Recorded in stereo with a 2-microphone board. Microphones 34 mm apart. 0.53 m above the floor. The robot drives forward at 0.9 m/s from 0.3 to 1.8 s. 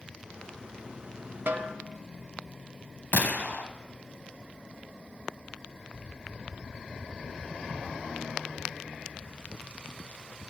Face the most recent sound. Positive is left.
turn(degrees=55)  # may be behind; listen again after turning